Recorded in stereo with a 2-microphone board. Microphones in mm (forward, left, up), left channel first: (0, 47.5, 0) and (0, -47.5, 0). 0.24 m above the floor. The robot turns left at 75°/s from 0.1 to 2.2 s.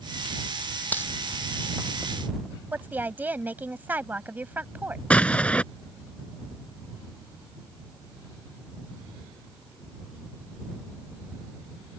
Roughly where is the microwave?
I don't hear a microwave.